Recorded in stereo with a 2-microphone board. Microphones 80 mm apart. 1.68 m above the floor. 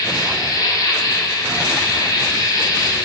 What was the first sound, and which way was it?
An insect, 50° left (ahead or behind).